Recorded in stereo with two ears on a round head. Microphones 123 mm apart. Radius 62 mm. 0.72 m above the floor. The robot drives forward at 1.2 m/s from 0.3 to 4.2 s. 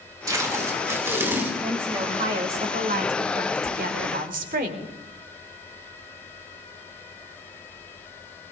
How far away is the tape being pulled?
About 2.5 m.